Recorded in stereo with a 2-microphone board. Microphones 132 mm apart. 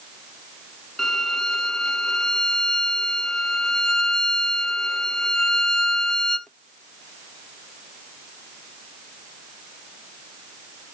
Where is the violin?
5° left (ahead or behind), 0.6 m.